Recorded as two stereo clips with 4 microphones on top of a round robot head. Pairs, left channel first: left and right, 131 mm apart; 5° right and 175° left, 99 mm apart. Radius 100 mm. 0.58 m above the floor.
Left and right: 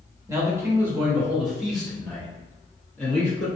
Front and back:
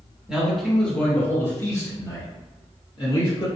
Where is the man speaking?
115° right, 1.1 m; by 3.5 s 15° left, 1.8 m.